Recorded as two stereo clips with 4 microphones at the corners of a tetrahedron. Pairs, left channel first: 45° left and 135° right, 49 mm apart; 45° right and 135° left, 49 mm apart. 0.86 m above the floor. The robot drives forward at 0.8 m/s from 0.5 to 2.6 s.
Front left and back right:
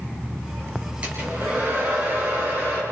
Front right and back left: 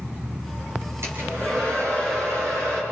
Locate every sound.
1.0 s a hair dryer: 160° left, 6 m; by 2.8 s 165° left, 7.5 m